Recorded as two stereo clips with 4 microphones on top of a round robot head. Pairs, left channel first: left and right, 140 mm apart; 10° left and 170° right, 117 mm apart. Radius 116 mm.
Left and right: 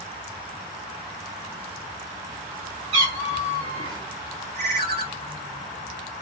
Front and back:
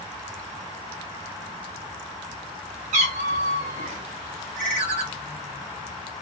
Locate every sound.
2.9 s a cat meowing: 140° right, 3 m
4.5 s a ringtone: 140° right, 1.2 m